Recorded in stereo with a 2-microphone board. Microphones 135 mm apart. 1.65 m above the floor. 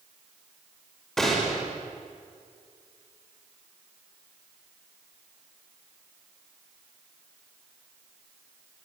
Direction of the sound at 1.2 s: 5° left (ahead or behind).